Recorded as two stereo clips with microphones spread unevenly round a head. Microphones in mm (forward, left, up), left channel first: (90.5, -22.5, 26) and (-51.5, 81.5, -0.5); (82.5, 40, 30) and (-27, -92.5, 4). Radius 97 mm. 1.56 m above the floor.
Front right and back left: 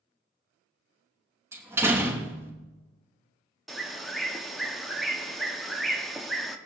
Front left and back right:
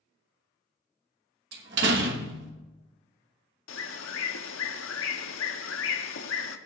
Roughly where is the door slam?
Behind right.